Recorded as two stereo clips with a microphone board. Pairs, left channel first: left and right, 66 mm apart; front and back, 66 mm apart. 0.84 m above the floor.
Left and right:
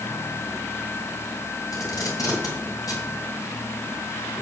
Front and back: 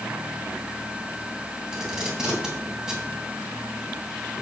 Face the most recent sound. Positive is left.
turn(degrees=100)